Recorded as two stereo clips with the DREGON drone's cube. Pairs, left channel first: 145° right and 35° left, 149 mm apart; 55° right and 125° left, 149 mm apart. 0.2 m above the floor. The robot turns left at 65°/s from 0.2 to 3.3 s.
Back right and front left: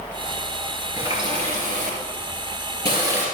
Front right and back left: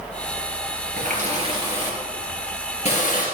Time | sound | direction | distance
1.0 | a running tap | 105° left | 2.5 m